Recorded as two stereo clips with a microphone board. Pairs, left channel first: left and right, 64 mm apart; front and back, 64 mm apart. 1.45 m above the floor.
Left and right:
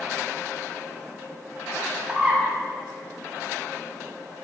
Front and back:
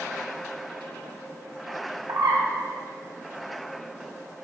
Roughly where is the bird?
Behind.